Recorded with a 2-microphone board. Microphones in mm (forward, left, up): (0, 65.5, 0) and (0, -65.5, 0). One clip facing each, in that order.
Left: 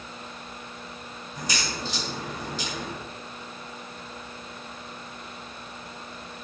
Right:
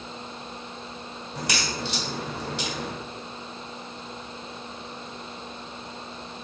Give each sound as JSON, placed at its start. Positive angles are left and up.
{"t": 1.4, "sound": "a crack", "side_deg": -70, "distance_m": 0.9}